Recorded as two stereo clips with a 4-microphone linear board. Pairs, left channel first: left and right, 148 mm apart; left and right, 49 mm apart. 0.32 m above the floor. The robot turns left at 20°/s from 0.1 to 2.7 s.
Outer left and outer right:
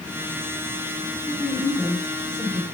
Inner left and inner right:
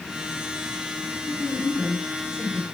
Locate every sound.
1.3 s a woman speaking: 5° left (ahead or behind), 3 m; by 2.6 s 20° right (ahead or behind), 3 m